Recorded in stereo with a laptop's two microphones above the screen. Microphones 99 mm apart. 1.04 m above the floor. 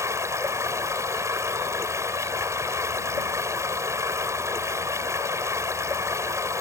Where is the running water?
30° right (ahead or behind).